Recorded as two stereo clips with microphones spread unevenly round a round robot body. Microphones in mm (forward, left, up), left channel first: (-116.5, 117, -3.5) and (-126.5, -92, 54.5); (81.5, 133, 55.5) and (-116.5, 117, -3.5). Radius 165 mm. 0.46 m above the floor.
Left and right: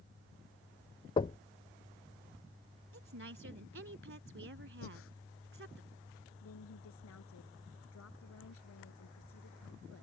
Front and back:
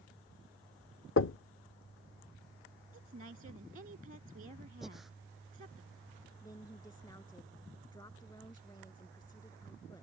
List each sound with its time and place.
1.2 s knocking: 30° left
2.9 s a woman speaking: 120° right
4.8 s breathing: 95° left
6.4 s a woman speaking: 75° left